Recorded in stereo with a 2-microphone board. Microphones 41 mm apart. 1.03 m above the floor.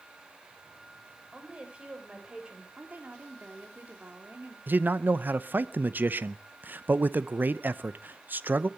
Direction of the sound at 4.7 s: 50° right (ahead or behind).